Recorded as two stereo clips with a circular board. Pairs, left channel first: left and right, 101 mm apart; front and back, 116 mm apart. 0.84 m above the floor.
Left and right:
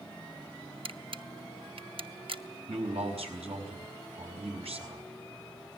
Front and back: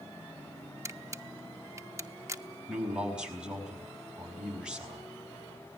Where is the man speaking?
95° right, 5 m.